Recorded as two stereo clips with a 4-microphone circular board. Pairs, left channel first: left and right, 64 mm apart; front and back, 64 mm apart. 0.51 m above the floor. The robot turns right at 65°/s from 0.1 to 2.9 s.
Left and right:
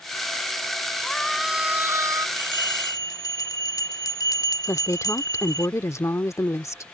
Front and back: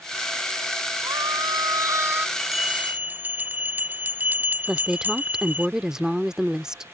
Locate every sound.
1.0 s a scream: 160° left; by 2.3 s 120° right
2.4 s a bell: 80° left; by 5.7 s 115° left
4.7 s a woman speaking: 100° left